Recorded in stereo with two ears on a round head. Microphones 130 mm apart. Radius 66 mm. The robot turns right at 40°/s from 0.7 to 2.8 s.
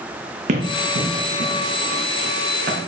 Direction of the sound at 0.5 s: 55° right (ahead or behind).